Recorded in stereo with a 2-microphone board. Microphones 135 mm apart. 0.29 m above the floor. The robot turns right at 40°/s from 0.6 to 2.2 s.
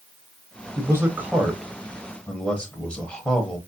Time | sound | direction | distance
0.8 | a man speaking | 45° right | 1.0 m